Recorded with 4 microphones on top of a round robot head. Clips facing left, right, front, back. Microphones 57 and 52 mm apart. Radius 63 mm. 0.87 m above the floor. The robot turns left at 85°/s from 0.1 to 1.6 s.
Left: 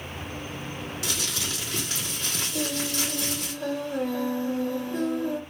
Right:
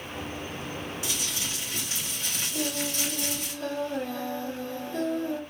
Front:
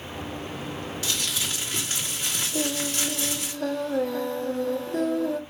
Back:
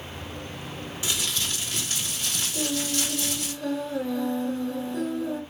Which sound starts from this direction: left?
Crumpling, at 1.0 s.